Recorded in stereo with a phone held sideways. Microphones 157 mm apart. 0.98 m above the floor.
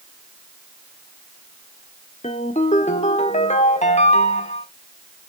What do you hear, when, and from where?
2.2 s a ringtone: 50° left (ahead or behind), 1.3 m